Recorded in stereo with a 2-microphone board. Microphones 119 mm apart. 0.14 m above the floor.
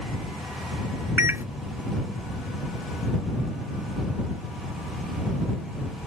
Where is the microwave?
20° right (ahead or behind).